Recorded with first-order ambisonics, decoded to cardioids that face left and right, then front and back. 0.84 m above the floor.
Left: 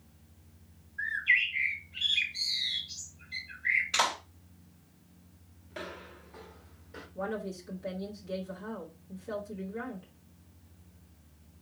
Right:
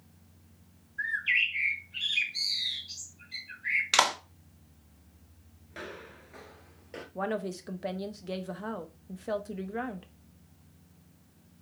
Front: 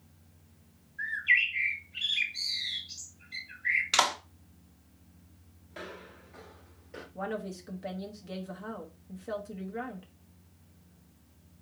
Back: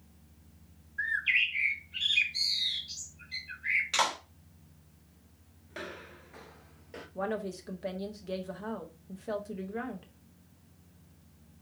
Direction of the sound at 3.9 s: 65° right.